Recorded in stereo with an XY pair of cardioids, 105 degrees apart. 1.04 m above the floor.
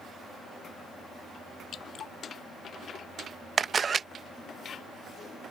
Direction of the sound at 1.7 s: 60° left.